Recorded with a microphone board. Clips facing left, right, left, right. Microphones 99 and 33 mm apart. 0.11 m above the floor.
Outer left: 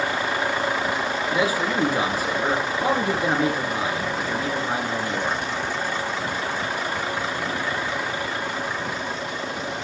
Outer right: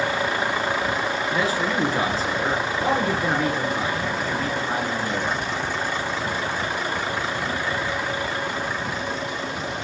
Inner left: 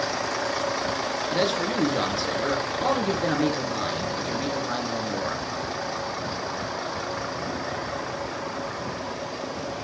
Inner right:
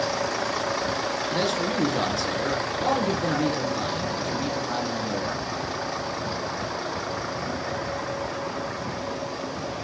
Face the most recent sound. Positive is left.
turn(degrees=15)  # may be behind; listen again after turning